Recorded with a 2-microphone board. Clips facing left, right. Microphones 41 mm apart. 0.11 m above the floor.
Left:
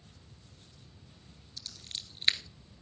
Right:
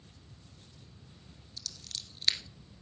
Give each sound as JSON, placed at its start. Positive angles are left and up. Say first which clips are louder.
{"t": 1.6, "sound": "scissors", "louder": "left 1 dB", "side_deg": 30, "distance_m": 1.1}